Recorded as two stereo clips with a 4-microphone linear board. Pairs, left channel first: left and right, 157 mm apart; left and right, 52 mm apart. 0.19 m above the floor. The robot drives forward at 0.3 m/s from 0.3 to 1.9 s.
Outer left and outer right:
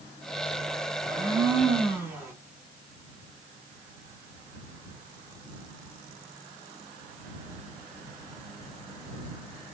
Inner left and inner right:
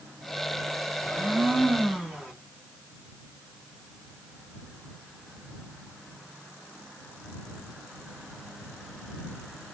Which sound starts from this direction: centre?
A blender, at 1.0 s.